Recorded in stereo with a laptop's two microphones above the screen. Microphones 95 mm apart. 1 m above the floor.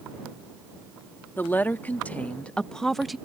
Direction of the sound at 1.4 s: 20° left (ahead or behind).